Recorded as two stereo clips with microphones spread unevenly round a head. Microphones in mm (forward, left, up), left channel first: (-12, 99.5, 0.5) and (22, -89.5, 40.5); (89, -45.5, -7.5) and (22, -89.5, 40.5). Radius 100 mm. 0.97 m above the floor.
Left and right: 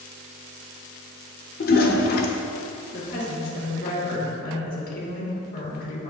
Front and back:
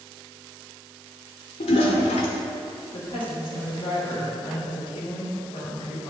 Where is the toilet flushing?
55° left, 0.9 m.